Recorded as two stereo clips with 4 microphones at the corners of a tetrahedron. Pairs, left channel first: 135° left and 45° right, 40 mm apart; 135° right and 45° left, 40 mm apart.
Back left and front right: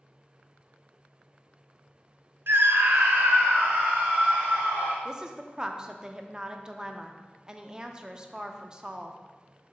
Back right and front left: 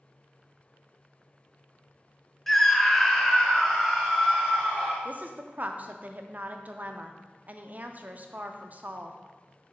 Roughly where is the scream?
Ahead right.